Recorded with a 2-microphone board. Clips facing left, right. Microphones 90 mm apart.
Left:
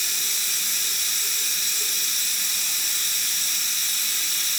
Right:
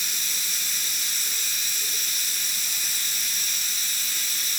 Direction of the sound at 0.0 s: 75° left (ahead or behind).